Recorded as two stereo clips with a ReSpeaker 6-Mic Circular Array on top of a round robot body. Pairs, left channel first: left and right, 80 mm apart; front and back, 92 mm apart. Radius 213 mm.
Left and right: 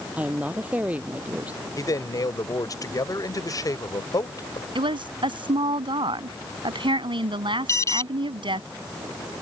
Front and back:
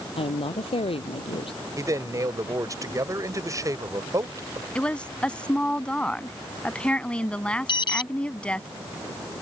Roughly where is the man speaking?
Behind left.